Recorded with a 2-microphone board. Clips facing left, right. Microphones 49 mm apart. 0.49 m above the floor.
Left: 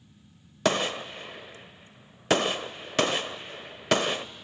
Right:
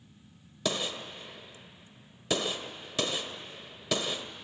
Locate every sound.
0.7 s a gunshot: 50° left (ahead or behind), 0.5 m